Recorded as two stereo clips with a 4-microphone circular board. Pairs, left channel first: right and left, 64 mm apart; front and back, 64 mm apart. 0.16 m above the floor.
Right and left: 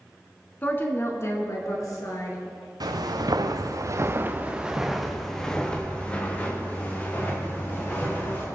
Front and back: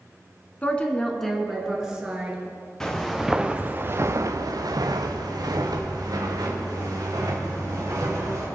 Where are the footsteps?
85° left, 1.5 m; by 8.5 s 150° right, 4.5 m.